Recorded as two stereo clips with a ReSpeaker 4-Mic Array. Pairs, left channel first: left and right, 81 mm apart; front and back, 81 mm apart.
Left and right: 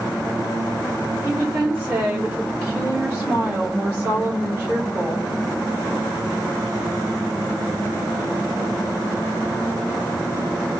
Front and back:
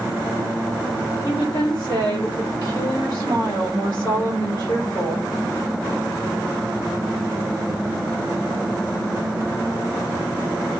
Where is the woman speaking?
40° right, 1.2 m.